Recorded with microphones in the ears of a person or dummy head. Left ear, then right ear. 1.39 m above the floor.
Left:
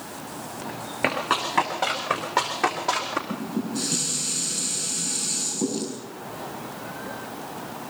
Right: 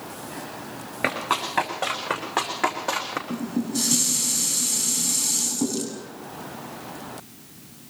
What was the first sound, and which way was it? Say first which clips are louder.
Running footsteps: left 1 dB; 10° right (ahead or behind).